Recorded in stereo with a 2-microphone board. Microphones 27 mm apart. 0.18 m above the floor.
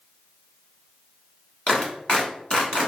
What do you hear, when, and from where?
1.7 s a clap: 45° left (ahead or behind), 1.4 m